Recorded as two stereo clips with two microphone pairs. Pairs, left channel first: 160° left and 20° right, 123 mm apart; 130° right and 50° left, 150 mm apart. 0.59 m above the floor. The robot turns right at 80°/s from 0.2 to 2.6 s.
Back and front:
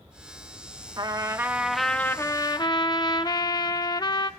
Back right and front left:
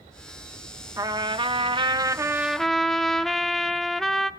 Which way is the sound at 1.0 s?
10° left.